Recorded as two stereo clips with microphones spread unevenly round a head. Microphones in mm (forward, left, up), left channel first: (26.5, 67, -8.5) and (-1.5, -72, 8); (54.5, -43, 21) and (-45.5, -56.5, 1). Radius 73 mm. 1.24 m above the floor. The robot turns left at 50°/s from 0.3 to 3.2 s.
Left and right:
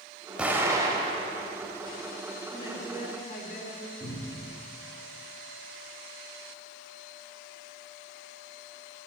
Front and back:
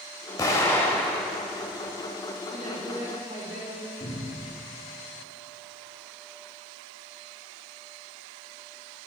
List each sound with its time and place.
0.4 s an explosion: 25° right, 1.4 m; by 2.1 s 110° right, 1.4 m
2.5 s a woman speaking: 150° left, 2.5 m; by 3.9 s 115° left, 2.5 m
4.0 s a cupboard door: 30° right, 3.5 m